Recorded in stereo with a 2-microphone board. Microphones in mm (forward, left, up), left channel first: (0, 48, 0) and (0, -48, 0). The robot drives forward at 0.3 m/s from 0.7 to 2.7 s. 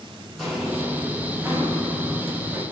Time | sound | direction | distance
0.4 | footsteps | centre (ahead or behind) | 2.5 m